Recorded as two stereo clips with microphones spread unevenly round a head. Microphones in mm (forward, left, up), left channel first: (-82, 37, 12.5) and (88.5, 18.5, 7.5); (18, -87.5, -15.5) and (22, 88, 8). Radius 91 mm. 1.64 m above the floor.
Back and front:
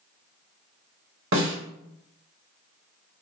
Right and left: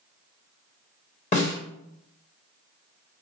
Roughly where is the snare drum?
Ahead right.